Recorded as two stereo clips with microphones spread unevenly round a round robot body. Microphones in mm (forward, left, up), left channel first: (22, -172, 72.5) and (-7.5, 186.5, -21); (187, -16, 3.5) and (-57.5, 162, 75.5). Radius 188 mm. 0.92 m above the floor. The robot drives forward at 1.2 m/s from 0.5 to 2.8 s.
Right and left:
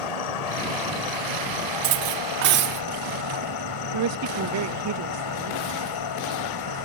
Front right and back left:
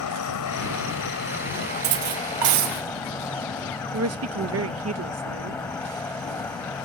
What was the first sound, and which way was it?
An insect, 85° right.